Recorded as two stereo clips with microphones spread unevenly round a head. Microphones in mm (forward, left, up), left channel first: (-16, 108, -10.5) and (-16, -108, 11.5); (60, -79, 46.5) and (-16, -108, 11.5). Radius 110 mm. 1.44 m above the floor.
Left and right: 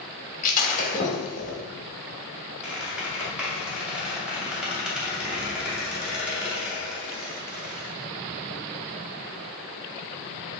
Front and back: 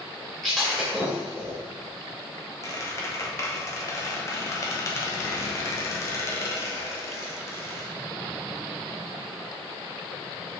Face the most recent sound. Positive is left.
turn(degrees=-5)